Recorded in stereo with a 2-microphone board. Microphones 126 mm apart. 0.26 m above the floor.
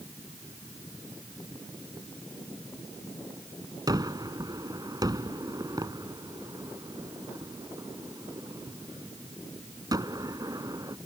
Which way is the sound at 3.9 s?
30° right (ahead or behind).